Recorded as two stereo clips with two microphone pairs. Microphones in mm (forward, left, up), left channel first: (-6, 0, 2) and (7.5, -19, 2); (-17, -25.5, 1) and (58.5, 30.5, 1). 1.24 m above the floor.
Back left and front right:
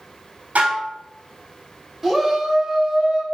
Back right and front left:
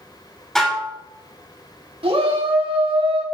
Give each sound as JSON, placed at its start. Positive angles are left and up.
{"t": 0.6, "sound": "dishes clattering", "azimuth_deg": -55, "distance_m": 3.0}
{"t": 2.0, "sound": "a shout", "azimuth_deg": 25, "distance_m": 3.0}